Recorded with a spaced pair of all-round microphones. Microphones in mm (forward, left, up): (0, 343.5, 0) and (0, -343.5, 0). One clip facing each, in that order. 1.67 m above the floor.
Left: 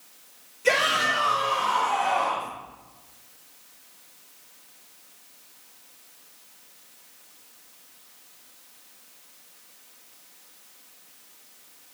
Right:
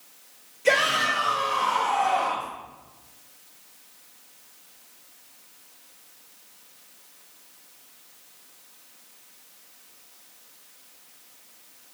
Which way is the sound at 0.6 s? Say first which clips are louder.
Right 1 dB; 40° left (ahead or behind).